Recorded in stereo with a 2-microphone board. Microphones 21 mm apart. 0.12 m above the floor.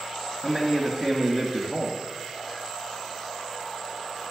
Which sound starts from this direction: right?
A man speaking, at 0.4 s.